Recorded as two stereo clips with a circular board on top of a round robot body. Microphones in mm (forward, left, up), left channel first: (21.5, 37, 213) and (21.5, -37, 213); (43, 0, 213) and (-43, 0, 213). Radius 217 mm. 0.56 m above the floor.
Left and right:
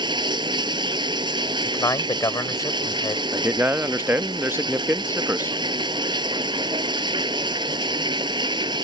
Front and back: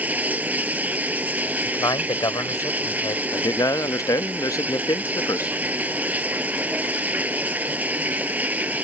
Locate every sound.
0.0 s running water: 105° right
1.6 s a man speaking: 45° left
3.3 s a man speaking: 35° right